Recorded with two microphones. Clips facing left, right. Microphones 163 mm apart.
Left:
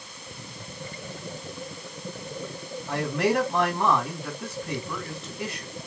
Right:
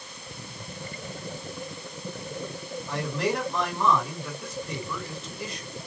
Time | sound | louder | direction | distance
2.9 | a man speaking | left 4 dB | 65° left (ahead or behind) | 4 m